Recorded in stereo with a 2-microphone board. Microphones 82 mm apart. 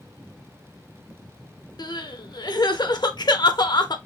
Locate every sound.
1.8 s crying: 60° left (ahead or behind), 0.5 m